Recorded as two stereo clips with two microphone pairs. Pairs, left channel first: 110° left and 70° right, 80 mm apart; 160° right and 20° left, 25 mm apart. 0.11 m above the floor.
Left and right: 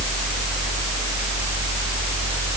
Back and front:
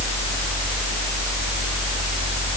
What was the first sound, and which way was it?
Only background noise.